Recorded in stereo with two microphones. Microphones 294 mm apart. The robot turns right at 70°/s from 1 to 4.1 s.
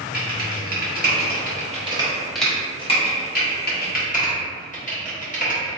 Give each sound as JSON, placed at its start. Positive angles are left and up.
{"t": 0.1, "sound": "typing on a keyboard", "side_deg": -30, "distance_m": 1.0}